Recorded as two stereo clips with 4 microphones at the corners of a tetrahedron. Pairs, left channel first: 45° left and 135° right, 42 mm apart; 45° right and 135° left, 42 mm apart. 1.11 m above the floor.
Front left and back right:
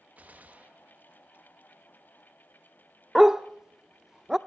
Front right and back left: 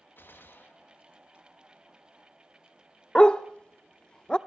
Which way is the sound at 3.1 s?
75° right.